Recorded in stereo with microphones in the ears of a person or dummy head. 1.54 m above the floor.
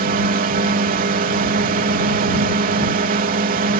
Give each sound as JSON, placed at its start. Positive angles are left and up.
{"t": 0.0, "sound": "a drone", "side_deg": -40}